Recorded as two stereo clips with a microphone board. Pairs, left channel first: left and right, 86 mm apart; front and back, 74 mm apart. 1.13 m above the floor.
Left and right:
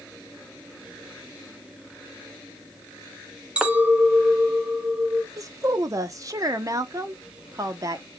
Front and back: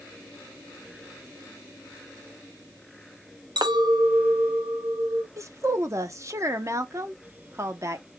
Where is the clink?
165° right, 0.8 m.